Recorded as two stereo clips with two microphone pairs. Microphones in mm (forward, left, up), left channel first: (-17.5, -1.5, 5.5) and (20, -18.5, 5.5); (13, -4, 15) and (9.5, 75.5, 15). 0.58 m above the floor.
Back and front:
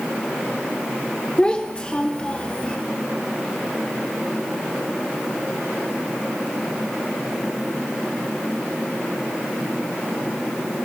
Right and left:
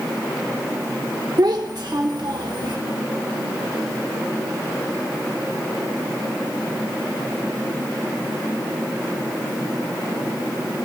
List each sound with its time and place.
1.4 s a child speaking: 90° left, 1.0 m; by 2.8 s 95° left, 1.7 m